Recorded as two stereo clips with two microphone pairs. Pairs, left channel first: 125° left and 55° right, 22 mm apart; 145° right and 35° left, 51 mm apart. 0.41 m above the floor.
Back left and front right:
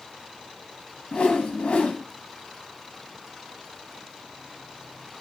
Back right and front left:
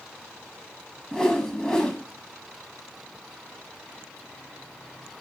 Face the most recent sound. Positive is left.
turn(degrees=140)